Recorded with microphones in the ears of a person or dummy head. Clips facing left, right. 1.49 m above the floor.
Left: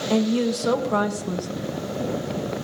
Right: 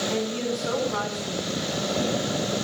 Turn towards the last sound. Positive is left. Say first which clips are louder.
# left 11 dB
turn(degrees=65)  # may be behind; listen again after turning